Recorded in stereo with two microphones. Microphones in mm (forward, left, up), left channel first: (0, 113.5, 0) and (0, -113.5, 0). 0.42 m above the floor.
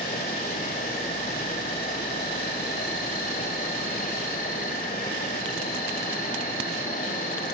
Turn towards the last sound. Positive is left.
turn(degrees=40)  # may be behind; listen again after turning